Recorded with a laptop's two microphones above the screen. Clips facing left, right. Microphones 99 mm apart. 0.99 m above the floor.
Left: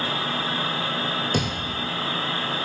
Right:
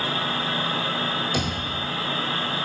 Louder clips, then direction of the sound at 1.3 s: Left 1 dB; 55° left (ahead or behind).